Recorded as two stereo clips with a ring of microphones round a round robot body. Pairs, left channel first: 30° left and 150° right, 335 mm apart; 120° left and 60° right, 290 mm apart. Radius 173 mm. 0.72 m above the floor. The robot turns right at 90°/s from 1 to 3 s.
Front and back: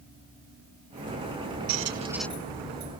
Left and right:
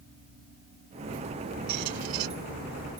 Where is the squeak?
105° right; by 2.3 s 55° right.